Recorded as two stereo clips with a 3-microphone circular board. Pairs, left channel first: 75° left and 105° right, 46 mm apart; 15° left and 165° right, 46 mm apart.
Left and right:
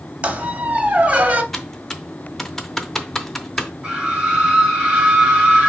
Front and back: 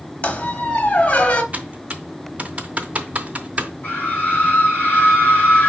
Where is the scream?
35° right, 3 m.